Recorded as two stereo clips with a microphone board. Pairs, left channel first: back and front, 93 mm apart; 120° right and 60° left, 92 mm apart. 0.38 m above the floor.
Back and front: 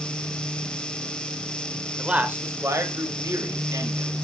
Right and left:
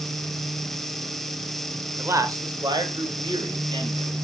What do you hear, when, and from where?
2.0 s a man speaking: 70° left, 1.2 m; by 4.1 s 40° left, 3.5 m